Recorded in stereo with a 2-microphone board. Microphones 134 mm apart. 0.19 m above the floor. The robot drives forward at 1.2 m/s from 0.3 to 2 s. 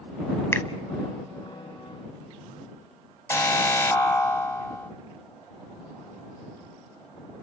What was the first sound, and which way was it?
A finger snap, 20° left (ahead or behind).